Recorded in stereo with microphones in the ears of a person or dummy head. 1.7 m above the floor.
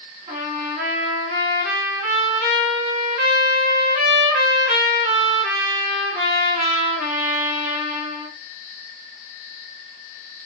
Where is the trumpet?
35° right (ahead or behind), 1.3 m.